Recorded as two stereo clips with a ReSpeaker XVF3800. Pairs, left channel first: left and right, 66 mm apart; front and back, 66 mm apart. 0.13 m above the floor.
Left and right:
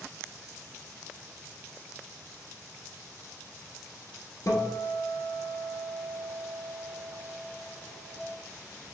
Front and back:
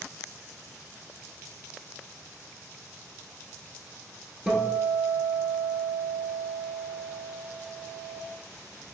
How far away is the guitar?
About 1.0 m.